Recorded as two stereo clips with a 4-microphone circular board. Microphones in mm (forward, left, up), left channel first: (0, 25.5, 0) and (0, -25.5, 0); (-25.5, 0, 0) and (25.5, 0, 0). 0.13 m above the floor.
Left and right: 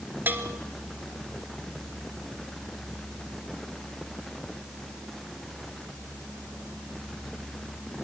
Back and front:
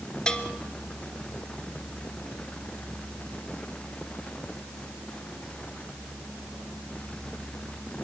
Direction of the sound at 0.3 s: 115° right.